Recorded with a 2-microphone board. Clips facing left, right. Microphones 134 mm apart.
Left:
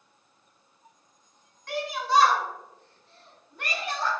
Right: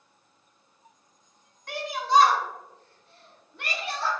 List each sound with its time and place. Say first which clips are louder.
1.7 s a shout: right 2 dB; centre (ahead or behind), 1.3 m; by 4.1 s 45° left (ahead or behind), 1.6 m